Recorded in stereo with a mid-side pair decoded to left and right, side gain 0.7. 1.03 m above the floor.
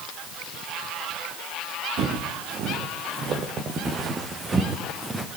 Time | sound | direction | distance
2.0 | footsteps | 55° right | 4.5 m